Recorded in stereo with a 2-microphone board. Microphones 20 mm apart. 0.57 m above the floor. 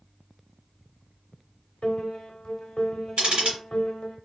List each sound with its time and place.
1.8 s a piano: 65° left (ahead or behind), 0.7 m
3.2 s ticking: 65° right (ahead or behind), 1.8 m